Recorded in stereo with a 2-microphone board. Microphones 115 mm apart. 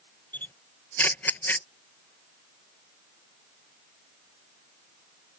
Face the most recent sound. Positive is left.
turn(degrees=15)  # may be behind; listen again after turning